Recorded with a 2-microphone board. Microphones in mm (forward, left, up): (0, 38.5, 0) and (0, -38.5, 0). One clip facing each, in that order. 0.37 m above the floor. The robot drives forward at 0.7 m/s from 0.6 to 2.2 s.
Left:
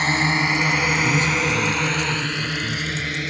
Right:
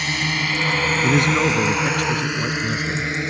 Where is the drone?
35° left (ahead or behind); by 3.3 s 25° right (ahead or behind).